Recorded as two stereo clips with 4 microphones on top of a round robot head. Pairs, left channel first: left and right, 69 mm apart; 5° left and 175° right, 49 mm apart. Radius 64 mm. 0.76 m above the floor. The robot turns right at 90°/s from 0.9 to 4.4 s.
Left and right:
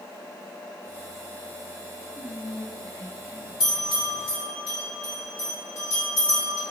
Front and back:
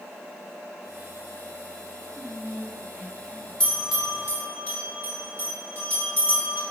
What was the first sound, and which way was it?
Whispering, 70° left.